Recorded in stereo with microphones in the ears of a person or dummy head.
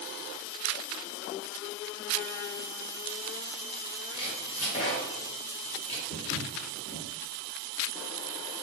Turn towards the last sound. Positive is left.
turn(degrees=40)  # may be behind; listen again after turning